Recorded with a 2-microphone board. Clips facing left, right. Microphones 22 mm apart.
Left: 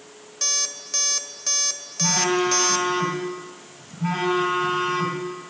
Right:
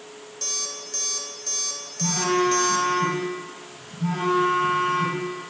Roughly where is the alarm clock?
Left.